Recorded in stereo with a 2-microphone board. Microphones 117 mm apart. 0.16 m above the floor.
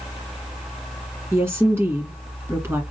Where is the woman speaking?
20° right (ahead or behind), 1.9 m.